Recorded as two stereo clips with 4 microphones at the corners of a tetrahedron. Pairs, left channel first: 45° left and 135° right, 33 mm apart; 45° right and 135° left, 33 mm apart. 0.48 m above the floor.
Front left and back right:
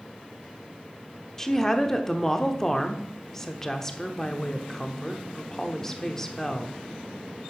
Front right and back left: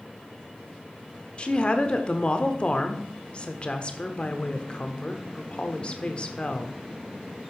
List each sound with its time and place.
1.4 s a woman speaking: 20° right, 1.0 m